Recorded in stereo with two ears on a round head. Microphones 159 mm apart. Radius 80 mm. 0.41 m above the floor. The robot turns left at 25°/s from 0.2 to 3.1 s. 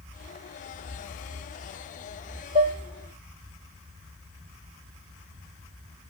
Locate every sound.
2.5 s dishes clattering: 35° right (ahead or behind), 1.0 m; by 2.8 s 30° right (ahead or behind), 1.0 m